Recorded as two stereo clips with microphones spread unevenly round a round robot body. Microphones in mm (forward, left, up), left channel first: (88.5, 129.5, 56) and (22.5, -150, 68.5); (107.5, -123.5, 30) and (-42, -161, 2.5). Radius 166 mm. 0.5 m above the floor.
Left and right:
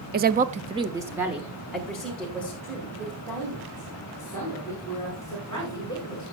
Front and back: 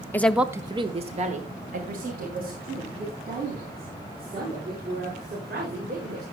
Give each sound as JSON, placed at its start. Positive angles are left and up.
{"t": 0.1, "sound": "a woman speaking", "azimuth_deg": -70, "distance_m": 0.7}